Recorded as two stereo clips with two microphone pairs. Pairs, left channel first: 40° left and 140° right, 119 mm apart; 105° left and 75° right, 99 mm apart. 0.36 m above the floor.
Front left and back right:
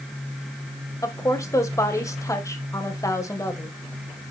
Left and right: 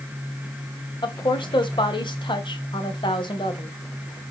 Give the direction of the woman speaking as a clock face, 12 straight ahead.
9 o'clock.